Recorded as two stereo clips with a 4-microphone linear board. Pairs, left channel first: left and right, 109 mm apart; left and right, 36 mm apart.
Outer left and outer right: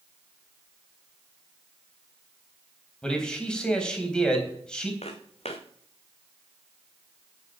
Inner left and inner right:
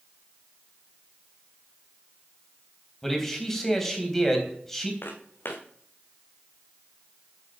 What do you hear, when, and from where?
3.0 s a man speaking: 5° left (ahead or behind), 3.5 m
5.0 s footsteps: 75° left (ahead or behind), 2 m